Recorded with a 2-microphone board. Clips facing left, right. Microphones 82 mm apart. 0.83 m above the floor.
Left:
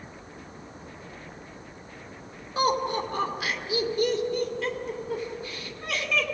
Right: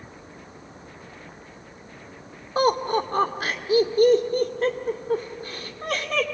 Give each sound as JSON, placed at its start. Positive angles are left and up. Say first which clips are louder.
{"t": 2.5, "sound": "laughter", "louder": "right 4 dB", "side_deg": -40, "distance_m": 2.5}